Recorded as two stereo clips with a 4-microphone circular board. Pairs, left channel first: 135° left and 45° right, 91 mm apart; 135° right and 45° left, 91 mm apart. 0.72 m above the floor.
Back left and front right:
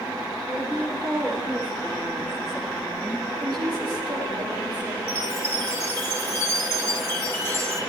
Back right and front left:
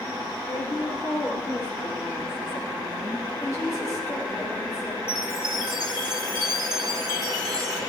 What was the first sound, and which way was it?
A woman speaking, 115° right.